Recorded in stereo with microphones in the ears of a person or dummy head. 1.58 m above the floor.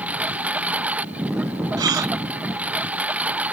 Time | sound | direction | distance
0.0 | a lawn mower | 10° right (ahead or behind) | ?
1.8 | a gasp | 20° right (ahead or behind) | ?